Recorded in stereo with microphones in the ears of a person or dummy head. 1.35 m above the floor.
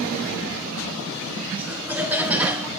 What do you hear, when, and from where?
1.6 s laughter: 15° right (ahead or behind), 3 m; by 2.7 s 10° right (ahead or behind), 2 m